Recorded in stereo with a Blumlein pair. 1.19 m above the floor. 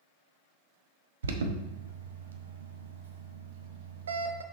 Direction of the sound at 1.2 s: 65° right.